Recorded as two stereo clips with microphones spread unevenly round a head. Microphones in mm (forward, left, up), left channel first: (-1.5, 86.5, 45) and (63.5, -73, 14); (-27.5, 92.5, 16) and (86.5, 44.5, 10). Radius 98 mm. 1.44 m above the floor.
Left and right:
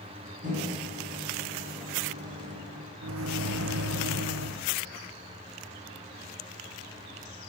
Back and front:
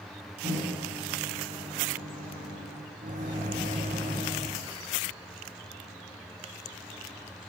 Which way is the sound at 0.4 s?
20° right.